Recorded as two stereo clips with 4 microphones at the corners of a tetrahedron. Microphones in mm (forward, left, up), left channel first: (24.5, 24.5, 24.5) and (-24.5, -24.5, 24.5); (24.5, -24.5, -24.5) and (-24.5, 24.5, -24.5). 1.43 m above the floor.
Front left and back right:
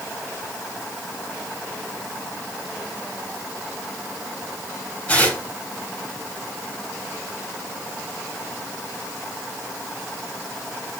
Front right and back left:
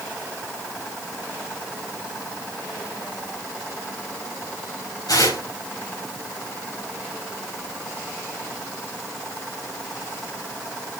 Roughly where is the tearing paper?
Ahead right.